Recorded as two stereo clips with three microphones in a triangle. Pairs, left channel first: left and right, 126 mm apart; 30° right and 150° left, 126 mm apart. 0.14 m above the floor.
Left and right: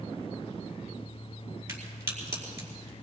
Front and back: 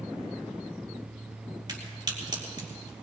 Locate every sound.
1.7 s a crack: 160° right, 4 m